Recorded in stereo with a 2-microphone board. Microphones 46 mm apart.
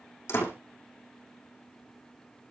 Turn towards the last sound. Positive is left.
turn(degrees=65)  # may be behind; listen again after turning